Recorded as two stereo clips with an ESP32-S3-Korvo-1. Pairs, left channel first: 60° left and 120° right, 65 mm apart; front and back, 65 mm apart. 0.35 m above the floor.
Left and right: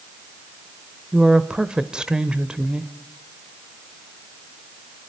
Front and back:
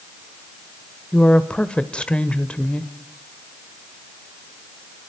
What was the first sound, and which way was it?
A woman speaking, 60° right.